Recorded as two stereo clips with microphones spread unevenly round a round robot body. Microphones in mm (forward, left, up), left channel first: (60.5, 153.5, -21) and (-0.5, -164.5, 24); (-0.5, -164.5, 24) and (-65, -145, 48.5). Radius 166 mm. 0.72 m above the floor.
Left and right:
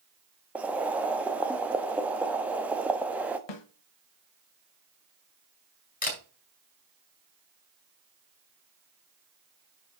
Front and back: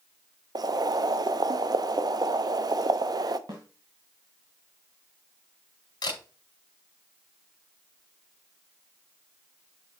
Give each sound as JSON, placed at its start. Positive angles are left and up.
{"t": 0.6, "sound": "boiling", "azimuth_deg": 165, "distance_m": 0.9}
{"t": 3.5, "sound": "a snare drum", "azimuth_deg": 90, "distance_m": 1.5}
{"t": 6.0, "sound": "a camera shutter", "azimuth_deg": 15, "distance_m": 3.5}